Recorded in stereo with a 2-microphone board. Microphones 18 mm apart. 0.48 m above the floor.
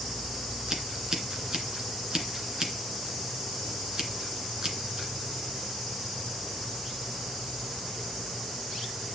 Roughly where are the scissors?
Right.